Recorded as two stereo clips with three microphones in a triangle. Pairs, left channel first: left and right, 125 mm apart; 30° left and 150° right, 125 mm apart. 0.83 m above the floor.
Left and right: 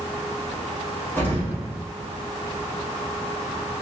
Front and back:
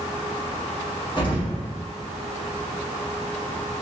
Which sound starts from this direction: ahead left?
An explosion, at 1.2 s.